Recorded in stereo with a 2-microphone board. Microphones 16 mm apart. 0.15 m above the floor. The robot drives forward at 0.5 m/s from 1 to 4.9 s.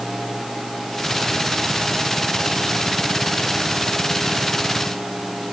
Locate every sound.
Only background noise.